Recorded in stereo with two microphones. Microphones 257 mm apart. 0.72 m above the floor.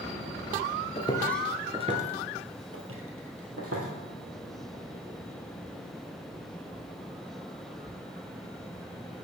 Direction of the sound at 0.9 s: 25° left (ahead or behind).